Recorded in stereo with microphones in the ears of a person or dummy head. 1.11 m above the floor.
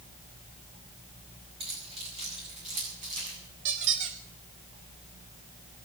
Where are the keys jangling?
30° right (ahead or behind), 7 m; by 3.4 s 45° right (ahead or behind), 8 m.